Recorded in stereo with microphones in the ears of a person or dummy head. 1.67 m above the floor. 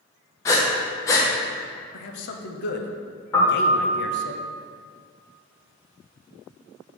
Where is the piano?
25° left (ahead or behind), 1.6 m.